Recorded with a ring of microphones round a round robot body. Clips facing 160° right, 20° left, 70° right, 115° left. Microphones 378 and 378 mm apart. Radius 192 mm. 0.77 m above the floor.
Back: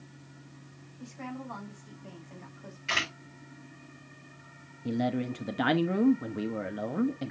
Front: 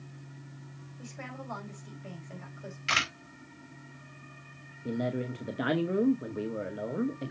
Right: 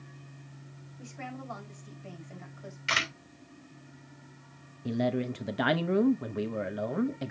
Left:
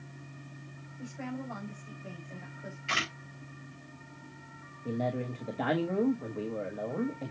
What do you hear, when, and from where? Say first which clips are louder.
1.0 s a woman speaking: back 4 dB, left 5 dB; 5° right, 4.5 m
2.9 s a camera shutter: back 2 dB, right 1 dB; 25° right, 4 m
4.8 s a man speaking: back 3 dB, right 4 dB; 95° right, 0.9 m